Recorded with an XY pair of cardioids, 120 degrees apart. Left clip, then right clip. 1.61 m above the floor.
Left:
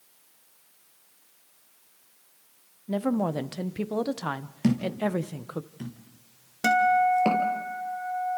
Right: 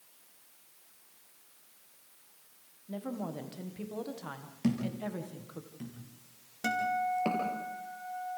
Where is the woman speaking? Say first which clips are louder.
Left 12 dB; 60° left, 1.2 m.